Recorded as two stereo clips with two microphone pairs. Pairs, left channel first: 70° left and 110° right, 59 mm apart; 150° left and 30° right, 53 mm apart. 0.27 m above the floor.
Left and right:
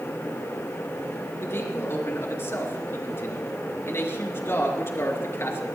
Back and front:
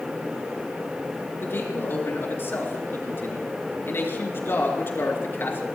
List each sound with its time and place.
1.4 s a man speaking: 110° left, 4 m